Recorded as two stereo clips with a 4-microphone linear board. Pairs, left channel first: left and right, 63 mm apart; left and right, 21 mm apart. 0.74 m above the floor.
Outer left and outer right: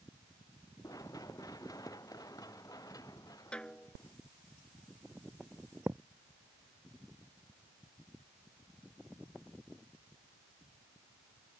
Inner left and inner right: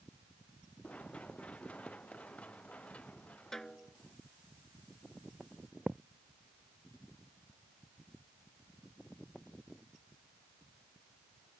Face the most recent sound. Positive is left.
turn(degrees=-50)  # may be behind; listen again after turning